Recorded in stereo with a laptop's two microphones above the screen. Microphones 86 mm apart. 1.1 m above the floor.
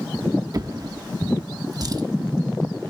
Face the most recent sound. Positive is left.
turn(degrees=-45)  # may be behind; listen again after turning